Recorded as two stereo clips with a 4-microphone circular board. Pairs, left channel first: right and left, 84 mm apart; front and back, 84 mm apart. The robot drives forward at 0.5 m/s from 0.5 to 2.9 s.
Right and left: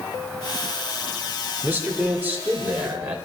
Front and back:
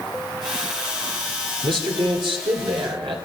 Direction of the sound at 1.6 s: 160° left.